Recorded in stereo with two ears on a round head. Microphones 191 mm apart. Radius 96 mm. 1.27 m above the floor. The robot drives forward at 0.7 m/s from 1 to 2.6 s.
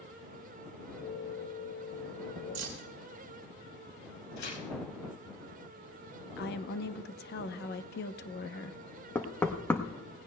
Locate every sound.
2.5 s keys jangling: 60° right (ahead or behind), 2 m
4.4 s tearing paper: 65° left (ahead or behind), 4.5 m
6.4 s a woman speaking: 50° left (ahead or behind), 0.7 m
9.2 s knocking: 10° left (ahead or behind), 0.9 m